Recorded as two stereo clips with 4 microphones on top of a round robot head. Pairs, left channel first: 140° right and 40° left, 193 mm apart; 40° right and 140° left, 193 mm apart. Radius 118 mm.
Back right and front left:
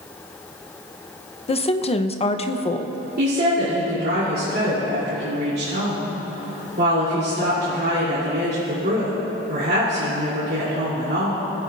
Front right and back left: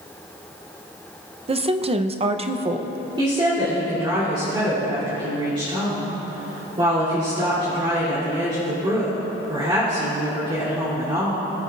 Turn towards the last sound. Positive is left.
turn(degrees=75)